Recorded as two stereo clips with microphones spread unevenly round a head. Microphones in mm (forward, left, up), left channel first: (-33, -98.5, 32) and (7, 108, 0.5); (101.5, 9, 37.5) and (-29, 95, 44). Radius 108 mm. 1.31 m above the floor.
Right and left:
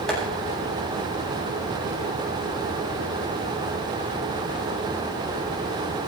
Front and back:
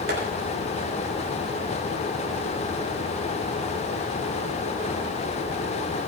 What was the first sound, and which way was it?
Tapping, 170° left.